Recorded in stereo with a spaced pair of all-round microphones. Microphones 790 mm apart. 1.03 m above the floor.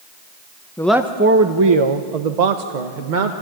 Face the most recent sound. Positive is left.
turn(degrees=-70)  # may be behind; listen again after turning